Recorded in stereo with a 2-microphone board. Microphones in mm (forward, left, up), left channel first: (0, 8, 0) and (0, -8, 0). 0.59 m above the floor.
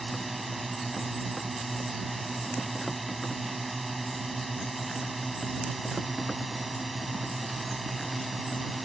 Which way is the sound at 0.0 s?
5° right (ahead or behind).